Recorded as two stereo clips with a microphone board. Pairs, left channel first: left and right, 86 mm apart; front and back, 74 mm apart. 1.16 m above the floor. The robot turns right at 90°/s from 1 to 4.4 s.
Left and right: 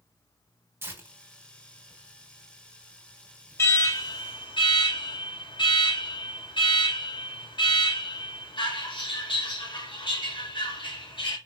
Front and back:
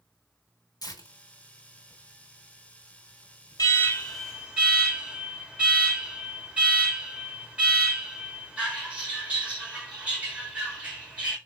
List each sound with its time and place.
0.8 s tearing paper: 30° right, 2.5 m; by 4.6 s 85° right, 2.5 m
3.6 s an alarm: 30° left, 3.5 m; by 11.4 s 105° left, 3.5 m